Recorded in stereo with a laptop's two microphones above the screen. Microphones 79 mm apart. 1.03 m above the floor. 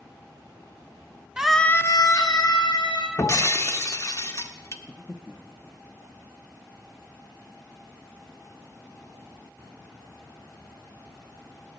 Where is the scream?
10° right (ahead or behind), 0.7 m; by 3.1 s 80° left, 1.8 m.